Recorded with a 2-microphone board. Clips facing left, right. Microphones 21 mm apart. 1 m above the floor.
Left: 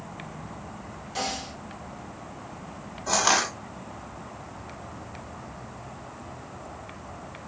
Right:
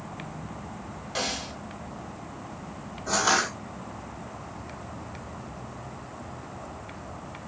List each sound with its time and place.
1.1 s a snare drum: 25° right (ahead or behind), 1.3 m
3.1 s crushing: 40° left (ahead or behind), 1.9 m